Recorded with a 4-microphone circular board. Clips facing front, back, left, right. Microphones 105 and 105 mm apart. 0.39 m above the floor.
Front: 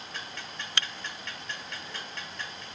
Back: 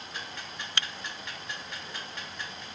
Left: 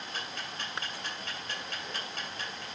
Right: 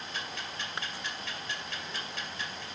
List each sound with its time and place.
0.1 s ticking: 105° left, 2.0 m